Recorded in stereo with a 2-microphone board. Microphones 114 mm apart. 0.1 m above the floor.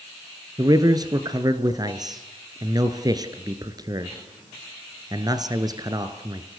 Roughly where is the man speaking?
Right.